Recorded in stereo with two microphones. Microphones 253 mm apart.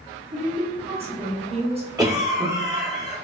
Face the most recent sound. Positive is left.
turn(degrees=-15)  # may be behind; listen again after turning